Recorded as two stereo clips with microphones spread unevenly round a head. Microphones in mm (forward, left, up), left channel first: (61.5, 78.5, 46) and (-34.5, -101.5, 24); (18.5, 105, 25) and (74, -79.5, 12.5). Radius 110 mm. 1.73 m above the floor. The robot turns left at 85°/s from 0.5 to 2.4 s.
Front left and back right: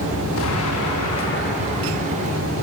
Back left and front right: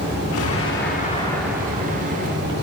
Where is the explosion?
100° left, 5.5 m; by 2.5 s 65° right, 5.5 m.